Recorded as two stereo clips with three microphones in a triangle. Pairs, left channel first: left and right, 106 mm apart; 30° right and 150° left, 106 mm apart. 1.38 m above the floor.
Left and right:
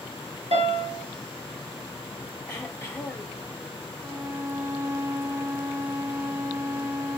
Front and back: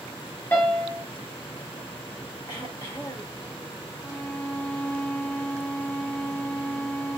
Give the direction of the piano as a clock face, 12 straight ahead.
3 o'clock.